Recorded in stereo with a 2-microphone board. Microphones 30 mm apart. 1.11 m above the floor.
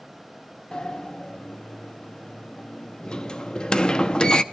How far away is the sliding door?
About 0.7 m.